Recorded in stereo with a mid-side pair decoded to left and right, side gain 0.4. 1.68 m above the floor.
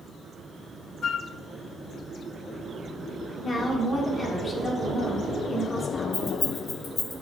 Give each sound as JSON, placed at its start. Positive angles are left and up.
{"t": 1.0, "sound": "a flute", "azimuth_deg": 55, "distance_m": 0.5}
{"t": 3.4, "sound": "a woman speaking", "azimuth_deg": 25, "distance_m": 2.5}
{"t": 6.1, "sound": "keys jangling", "azimuth_deg": 25, "distance_m": 3.0}